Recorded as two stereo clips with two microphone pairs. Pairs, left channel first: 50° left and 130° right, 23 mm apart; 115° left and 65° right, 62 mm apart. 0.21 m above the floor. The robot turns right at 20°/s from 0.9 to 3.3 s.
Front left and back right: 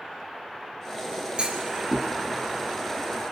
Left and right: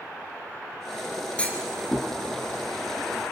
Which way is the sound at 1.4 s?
175° right.